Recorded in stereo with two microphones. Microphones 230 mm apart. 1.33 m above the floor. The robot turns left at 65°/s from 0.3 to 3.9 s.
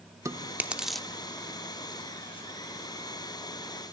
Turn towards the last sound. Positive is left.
turn(degrees=-5)  # may be behind; listen again after turning